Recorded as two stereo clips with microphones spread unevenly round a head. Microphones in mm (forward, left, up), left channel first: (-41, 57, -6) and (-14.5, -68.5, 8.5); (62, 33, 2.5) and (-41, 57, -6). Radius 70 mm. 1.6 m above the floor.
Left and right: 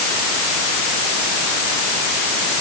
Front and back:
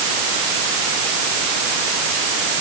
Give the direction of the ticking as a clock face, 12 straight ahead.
I don't hear ticking.